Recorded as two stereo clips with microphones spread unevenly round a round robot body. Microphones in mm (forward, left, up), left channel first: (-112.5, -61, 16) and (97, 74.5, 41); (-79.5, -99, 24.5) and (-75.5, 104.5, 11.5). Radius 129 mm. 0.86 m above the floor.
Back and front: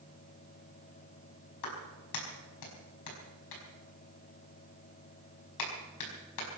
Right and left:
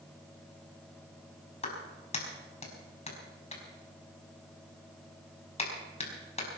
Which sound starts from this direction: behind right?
A clap, at 1.6 s.